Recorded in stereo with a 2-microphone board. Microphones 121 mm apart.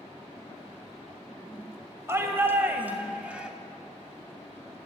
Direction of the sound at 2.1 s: 20° right (ahead or behind).